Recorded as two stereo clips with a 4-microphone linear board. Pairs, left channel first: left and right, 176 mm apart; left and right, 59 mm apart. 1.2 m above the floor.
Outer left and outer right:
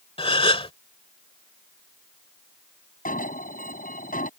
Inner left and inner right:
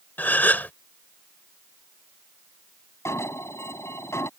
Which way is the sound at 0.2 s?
30° left (ahead or behind).